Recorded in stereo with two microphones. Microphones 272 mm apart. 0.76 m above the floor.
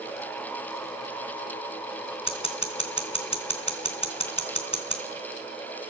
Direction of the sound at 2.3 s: 20° left (ahead or behind).